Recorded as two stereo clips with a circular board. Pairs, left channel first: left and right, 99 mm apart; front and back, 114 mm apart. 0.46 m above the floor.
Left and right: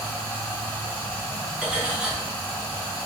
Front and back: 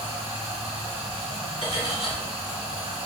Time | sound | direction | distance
0.0 | running water | 145° left | 0.9 m
1.6 | cutlery clinking | 10° right | 0.9 m